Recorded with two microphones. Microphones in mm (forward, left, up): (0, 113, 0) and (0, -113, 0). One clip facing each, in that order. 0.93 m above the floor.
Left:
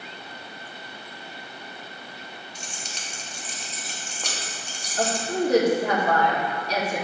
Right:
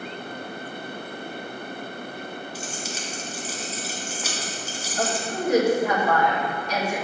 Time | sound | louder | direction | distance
2.5 | keys jangling | right 8 dB | 5° right (ahead or behind) | 1.0 m
5.0 | a woman speaking | left 3 dB | 35° left (ahead or behind) | 1.9 m